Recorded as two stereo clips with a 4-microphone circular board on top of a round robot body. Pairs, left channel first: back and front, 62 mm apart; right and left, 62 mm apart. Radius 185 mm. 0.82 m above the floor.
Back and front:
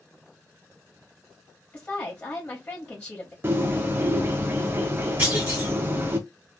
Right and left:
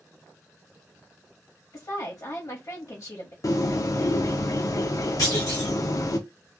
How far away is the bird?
About 0.6 m.